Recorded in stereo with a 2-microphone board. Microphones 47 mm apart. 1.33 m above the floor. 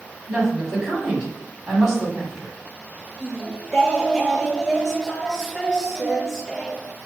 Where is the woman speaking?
15° right (ahead or behind), 4 m.